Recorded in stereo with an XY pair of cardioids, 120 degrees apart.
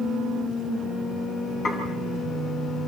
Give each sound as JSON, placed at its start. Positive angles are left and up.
{"t": 1.6, "sound": "dishes clattering", "azimuth_deg": 50, "distance_m": 8.5}